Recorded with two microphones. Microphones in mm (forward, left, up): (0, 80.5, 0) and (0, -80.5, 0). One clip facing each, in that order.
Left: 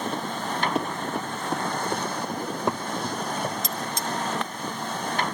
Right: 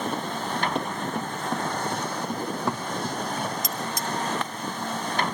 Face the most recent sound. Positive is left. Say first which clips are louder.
# even
turn(degrees=25)  # may be behind; listen again after turning